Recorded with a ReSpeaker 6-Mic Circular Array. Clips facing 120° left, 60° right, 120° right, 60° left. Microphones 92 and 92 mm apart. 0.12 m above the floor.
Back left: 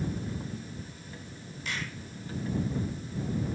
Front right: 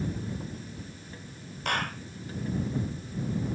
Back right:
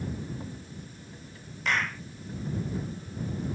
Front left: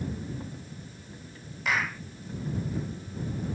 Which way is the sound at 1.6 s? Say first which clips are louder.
Front right 7 dB, even; 25° right.